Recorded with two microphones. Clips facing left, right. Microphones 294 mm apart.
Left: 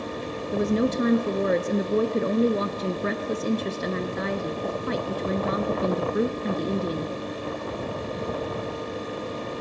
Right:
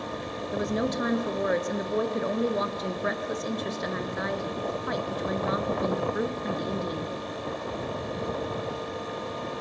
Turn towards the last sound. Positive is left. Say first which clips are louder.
# left 5 dB
turn(degrees=35)  # may be behind; listen again after turning